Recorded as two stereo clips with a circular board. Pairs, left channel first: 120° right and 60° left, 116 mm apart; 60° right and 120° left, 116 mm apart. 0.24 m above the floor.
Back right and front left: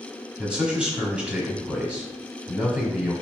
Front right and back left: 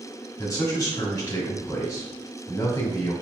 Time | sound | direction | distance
0.4 | a man speaking | 15° right | 1.3 m